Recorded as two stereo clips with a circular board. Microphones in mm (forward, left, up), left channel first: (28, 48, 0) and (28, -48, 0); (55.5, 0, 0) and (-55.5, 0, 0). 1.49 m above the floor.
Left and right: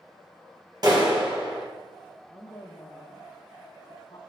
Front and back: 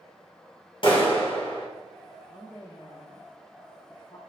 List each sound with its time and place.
0.8 s a clap: 40° right, 2 m
2.3 s a woman speaking: 40° left, 1.1 m